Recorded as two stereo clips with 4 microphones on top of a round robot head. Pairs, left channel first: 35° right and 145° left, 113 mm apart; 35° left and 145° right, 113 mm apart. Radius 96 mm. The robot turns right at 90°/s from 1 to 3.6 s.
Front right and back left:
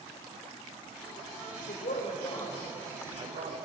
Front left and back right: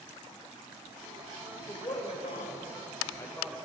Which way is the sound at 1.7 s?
40° right.